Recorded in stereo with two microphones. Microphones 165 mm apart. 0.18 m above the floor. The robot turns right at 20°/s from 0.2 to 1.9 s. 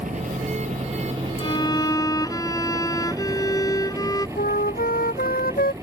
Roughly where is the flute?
Left.